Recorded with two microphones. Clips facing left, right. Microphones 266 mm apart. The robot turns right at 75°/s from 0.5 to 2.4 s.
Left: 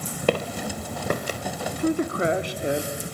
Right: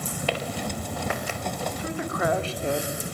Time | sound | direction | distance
0.3 | footsteps | 55° left (ahead or behind) | 1.6 m
1.7 | a man speaking | 110° left | 2.5 m